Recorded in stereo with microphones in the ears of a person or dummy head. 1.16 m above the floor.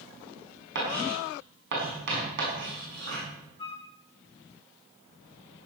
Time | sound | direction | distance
0.8 | writing | 60° right (ahead or behind) | 5.5 m
3.6 | a flute | 25° left (ahead or behind) | 1.6 m